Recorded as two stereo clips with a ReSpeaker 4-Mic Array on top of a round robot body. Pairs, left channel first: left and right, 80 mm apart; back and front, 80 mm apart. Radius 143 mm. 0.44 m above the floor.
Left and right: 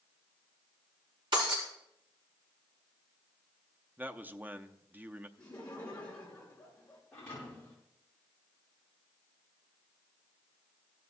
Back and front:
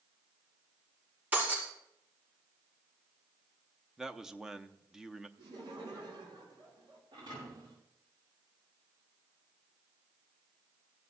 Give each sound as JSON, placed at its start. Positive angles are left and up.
{"t": 1.3, "sound": "breaking glass", "azimuth_deg": -70, "distance_m": 4.5}
{"t": 4.0, "sound": "a man speaking", "azimuth_deg": -75, "distance_m": 0.8}
{"t": 5.4, "sound": "laughter", "azimuth_deg": 15, "distance_m": 6.0}
{"t": 7.1, "sound": "a thud", "azimuth_deg": 20, "distance_m": 7.5}